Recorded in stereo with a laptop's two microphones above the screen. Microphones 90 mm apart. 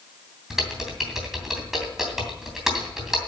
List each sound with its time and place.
0.5 s typing on a keyboard: 5° right (ahead or behind), 2.5 m